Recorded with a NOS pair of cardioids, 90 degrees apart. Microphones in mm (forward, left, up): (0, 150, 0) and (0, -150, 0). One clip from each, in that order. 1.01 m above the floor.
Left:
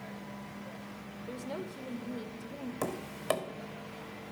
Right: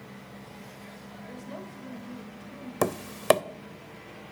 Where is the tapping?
45° right, 0.5 m.